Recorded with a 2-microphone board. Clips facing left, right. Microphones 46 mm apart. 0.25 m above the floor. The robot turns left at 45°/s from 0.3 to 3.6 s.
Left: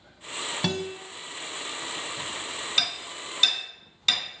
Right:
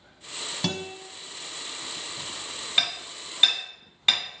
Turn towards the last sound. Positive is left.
turn(degrees=-25)  # may be behind; listen again after turning